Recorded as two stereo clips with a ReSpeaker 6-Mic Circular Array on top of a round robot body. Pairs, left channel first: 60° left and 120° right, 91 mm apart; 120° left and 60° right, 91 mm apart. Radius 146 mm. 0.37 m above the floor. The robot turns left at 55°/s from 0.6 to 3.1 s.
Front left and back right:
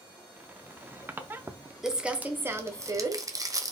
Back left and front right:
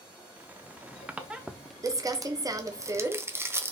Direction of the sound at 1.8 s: 35° right.